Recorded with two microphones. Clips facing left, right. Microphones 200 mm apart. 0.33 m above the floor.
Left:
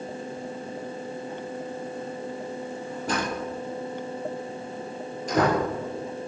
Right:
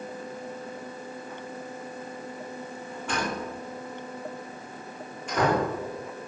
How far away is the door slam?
About 6 m.